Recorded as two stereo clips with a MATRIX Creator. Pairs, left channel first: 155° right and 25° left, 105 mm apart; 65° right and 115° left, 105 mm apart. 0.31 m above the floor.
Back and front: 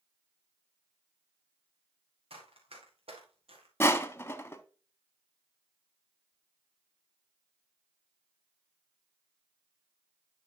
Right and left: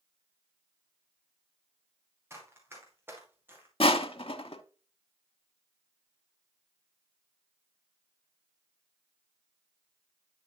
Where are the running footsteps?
45° left, 4 m; by 3.7 s 40° left, 3 m.